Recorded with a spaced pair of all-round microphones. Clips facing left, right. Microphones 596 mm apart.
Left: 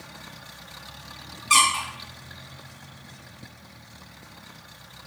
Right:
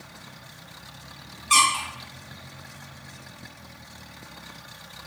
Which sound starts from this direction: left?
A squeak, at 1.5 s.